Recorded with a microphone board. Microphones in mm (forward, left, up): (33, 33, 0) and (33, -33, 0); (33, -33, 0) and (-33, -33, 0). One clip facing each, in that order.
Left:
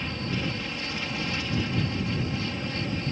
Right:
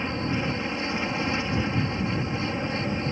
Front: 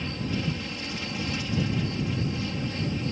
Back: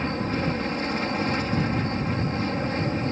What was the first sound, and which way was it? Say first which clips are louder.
An aircraft: right 4 dB, back 5 dB; 145° right.